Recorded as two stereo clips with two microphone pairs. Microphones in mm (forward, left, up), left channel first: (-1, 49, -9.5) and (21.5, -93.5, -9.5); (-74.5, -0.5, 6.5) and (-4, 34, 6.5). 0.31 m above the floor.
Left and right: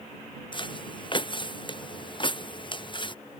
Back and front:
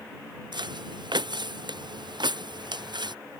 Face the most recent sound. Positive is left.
turn(degrees=45)